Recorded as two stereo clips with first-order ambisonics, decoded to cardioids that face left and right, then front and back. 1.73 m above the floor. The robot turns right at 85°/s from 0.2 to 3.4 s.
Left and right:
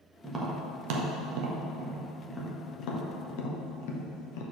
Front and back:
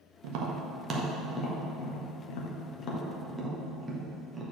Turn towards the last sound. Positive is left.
turn(degrees=95)